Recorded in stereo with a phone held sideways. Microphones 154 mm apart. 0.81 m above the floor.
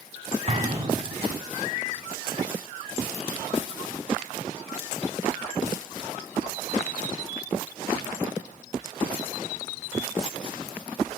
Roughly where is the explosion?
Right.